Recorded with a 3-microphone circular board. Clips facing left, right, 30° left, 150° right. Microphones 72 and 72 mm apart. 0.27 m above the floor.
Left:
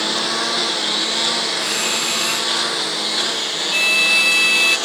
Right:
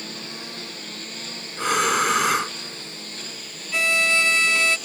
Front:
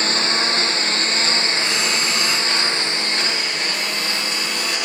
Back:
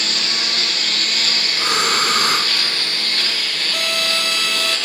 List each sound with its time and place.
0.0 s a lawn mower: 90° left; by 4.9 s 105° left
1.6 s breathing: 115° right
3.7 s a violin: 155° right